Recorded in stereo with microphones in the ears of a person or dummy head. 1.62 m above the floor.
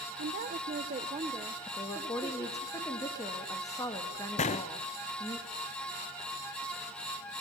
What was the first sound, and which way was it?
A woman speaking, 40° right (ahead or behind).